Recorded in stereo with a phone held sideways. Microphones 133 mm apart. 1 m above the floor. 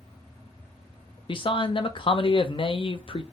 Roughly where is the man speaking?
Left.